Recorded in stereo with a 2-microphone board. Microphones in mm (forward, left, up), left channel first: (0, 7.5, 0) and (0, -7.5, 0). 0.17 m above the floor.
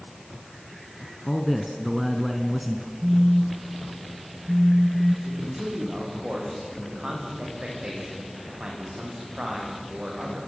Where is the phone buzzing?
50° right (ahead or behind), 1.4 m.